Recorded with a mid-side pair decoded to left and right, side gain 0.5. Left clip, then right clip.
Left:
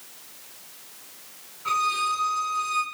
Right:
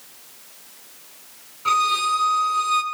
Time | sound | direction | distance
1.6 | a violin | 45° right | 3.5 m